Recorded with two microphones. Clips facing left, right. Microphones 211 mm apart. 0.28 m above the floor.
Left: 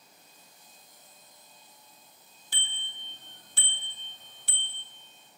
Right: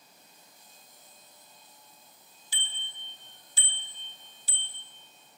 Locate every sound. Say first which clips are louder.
2.5 s a bicycle bell: left 2 dB; 55° left (ahead or behind), 3 m; by 4.9 s 65° left (ahead or behind), 2.0 m